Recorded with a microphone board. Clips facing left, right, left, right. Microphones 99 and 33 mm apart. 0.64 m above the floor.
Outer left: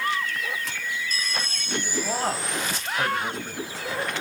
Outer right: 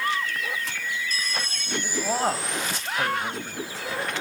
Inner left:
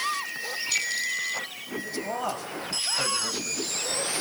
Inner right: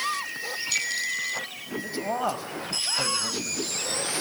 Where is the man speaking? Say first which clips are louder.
Outer right 3 dB, inner right 3 dB; 20° right (ahead or behind), 3 m; by 3.6 s 5° left (ahead or behind), 3 m.